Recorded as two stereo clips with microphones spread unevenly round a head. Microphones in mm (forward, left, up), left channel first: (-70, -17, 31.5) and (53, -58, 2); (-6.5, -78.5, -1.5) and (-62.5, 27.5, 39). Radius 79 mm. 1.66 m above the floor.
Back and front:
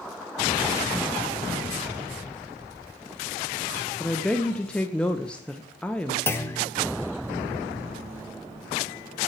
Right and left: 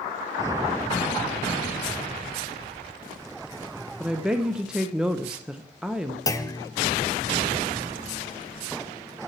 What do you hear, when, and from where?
4.0 s a woman speaking: 120° left, 0.5 m
6.3 s a clunk: 130° right, 0.8 m